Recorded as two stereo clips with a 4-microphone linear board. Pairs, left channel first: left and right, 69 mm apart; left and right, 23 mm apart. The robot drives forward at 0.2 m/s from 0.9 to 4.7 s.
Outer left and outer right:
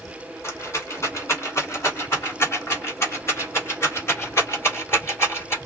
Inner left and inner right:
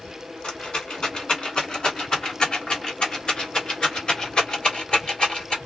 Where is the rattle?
40° left (ahead or behind), 1.7 m.